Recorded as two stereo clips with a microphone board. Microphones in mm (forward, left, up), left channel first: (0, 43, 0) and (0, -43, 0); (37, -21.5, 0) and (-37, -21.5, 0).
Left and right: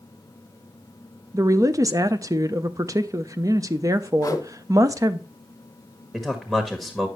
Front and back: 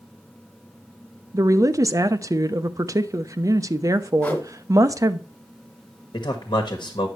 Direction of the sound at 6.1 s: 10° right.